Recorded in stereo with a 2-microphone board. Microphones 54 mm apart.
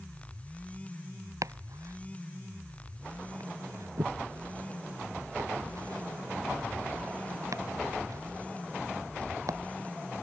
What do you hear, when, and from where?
1.4 s chopping: 75° right (ahead or behind)